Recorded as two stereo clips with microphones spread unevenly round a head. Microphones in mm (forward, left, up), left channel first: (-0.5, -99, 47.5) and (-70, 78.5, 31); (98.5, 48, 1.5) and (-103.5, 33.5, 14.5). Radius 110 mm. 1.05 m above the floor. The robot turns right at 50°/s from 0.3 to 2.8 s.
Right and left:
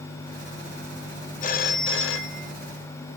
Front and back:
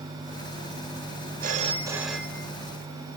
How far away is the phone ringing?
About 0.6 m.